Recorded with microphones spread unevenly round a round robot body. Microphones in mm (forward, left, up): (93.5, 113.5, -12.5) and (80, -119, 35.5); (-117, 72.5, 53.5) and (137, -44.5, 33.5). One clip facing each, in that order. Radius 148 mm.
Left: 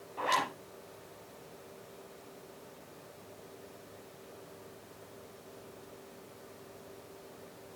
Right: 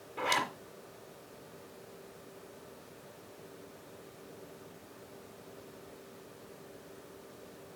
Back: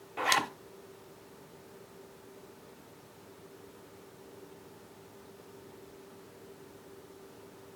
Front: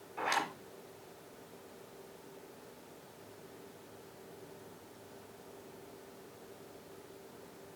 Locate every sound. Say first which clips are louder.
0.2 s a zipper: even, back 4 dB; 165° right, 0.9 m